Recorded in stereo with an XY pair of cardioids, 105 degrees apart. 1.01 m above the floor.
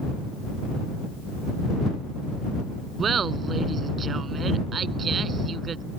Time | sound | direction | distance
3.0 | laughter | 45° right | ?